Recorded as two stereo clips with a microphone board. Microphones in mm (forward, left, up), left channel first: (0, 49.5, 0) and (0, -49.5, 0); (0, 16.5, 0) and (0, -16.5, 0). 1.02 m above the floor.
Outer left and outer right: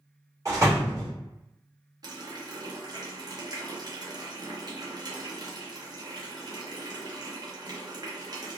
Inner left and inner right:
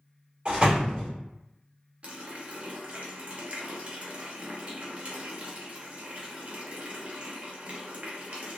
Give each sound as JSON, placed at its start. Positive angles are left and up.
{"t": 0.5, "sound": "a door slam", "side_deg": -35, "distance_m": 1.6}
{"t": 2.0, "sound": "a running tap", "side_deg": -40, "distance_m": 0.7}